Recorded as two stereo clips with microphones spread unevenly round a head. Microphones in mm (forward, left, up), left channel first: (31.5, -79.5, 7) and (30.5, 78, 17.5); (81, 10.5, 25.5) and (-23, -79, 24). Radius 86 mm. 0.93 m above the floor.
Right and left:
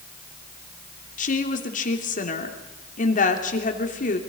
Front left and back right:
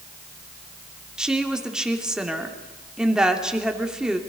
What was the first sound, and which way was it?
A woman speaking, 55° right.